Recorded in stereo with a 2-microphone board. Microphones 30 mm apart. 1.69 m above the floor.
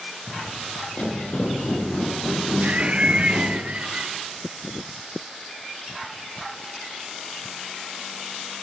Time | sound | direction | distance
0.3 | footsteps | 50° left (ahead or behind) | 2.5 m
2.6 | laughter | 40° right (ahead or behind) | 0.7 m